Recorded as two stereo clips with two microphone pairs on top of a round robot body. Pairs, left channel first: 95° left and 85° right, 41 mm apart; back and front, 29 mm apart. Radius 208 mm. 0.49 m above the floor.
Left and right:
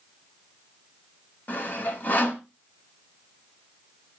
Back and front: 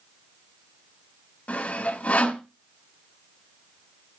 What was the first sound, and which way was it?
Sawing, 140° left.